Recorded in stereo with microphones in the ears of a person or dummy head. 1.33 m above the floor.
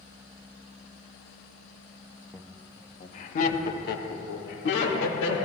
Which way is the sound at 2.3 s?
10° left (ahead or behind).